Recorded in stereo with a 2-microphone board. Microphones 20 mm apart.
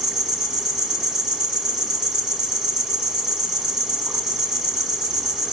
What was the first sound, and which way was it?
An insect, 45° right (ahead or behind).